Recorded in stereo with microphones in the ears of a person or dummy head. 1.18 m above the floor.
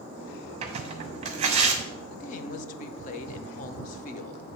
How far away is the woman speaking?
About 0.7 m.